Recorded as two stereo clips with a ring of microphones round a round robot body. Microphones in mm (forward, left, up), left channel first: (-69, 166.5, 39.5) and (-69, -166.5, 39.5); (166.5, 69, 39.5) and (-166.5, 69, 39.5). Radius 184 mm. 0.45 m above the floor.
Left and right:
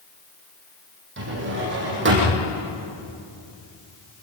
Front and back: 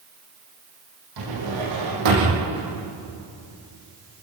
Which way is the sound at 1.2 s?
145° right.